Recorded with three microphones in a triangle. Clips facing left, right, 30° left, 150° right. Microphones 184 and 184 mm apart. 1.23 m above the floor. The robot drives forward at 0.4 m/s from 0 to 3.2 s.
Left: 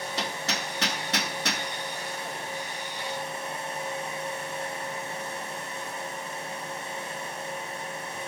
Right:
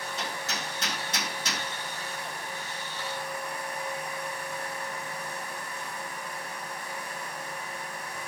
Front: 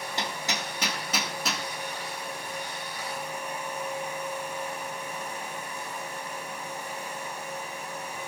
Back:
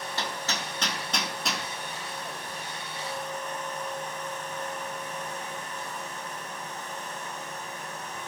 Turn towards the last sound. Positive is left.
turn(degrees=135)